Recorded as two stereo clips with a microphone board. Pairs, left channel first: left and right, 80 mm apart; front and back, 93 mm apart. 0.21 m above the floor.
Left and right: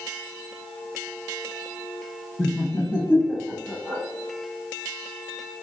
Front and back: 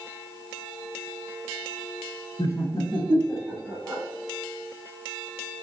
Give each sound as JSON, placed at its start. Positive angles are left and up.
{"t": 2.4, "sound": "laughter", "azimuth_deg": 20, "distance_m": 2.0}